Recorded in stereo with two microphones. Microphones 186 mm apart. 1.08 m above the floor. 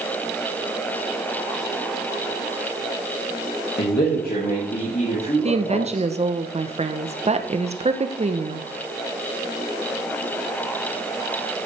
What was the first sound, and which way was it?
A man speaking, 60° left (ahead or behind).